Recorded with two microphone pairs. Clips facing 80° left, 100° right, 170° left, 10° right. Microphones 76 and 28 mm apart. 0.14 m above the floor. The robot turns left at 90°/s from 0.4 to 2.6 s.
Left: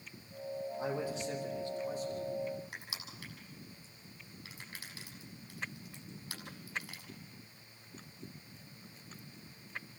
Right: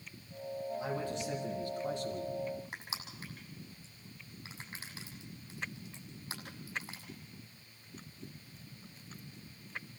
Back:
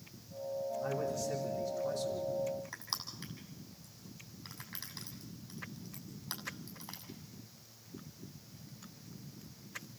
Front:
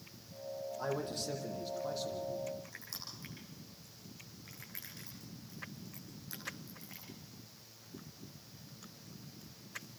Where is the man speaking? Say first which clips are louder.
Left 2 dB, front 1 dB; 25° left, 5.5 m; by 2.3 s 110° right, 5.5 m.